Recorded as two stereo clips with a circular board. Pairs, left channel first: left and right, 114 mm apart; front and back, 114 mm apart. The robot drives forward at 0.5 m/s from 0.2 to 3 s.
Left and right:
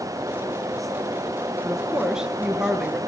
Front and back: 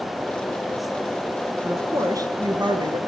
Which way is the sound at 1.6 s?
160° right.